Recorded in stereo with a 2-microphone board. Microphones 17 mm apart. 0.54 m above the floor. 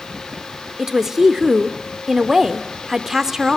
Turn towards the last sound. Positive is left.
turn(degrees=-20)  # may be behind; listen again after turning